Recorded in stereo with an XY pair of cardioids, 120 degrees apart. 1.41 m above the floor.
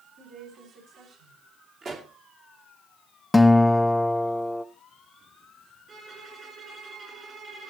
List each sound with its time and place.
0.2 s a woman speaking: 60° right, 6.5 m
1.8 s a pop: 40° right, 2.5 m
3.3 s a guitar: 10° left, 0.6 m
5.9 s a violin: 35° right, 6 m